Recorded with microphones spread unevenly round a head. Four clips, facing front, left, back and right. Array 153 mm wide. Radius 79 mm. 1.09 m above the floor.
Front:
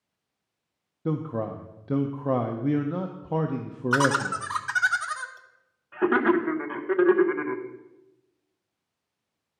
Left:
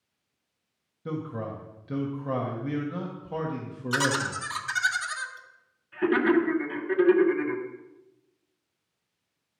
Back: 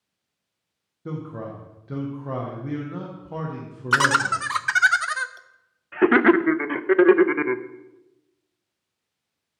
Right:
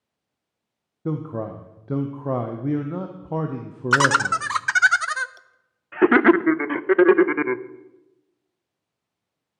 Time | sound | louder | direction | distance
1.1 | a man speaking | right 5 dB, front 4 dB | 50° right | 0.6 m
3.9 | laughter | right 9 dB, back 3 dB | 140° right | 0.5 m